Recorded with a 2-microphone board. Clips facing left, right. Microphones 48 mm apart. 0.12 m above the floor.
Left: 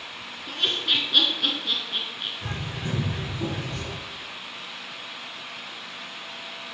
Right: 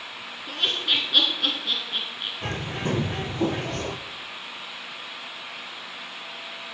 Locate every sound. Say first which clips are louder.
0.5 s laughter: even; 5° right (ahead or behind), 1.1 m
2.4 s a bird: right 4 dB; 65° right (ahead or behind), 0.6 m